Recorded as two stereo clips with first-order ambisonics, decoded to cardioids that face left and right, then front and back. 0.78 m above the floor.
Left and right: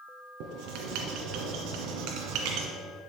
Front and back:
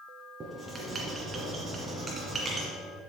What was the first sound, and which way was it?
Writing, 110° right.